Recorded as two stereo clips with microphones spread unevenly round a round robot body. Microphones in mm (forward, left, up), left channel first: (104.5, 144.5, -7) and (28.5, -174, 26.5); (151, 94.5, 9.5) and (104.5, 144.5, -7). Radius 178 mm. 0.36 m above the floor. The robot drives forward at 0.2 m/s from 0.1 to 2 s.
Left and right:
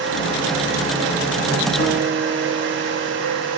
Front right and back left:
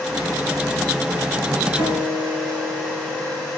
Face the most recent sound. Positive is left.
turn(degrees=140)